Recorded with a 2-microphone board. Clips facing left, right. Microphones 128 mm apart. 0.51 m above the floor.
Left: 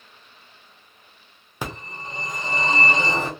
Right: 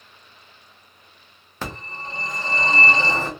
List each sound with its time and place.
1.6 s a phone ringing: 15° left (ahead or behind), 0.9 m